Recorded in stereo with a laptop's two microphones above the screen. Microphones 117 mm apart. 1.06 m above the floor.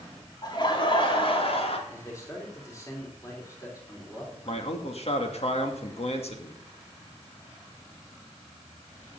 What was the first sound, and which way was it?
Laughter, 40° left (ahead or behind).